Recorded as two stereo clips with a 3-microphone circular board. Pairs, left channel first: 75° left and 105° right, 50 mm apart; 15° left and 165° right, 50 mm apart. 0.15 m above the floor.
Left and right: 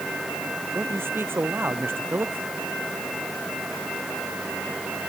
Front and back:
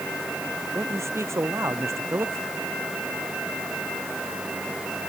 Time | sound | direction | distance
0.8 | a man speaking | 145° right | ?